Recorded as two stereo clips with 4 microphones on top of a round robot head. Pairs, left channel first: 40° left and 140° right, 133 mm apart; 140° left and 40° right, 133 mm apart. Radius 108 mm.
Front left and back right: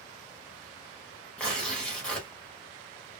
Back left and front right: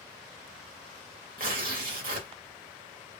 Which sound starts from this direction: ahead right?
Tearing paper, at 1.4 s.